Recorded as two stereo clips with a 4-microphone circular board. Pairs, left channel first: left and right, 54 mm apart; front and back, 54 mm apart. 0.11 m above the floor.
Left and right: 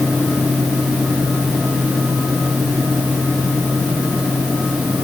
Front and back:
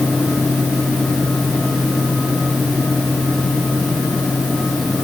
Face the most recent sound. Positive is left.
No sound to turn to.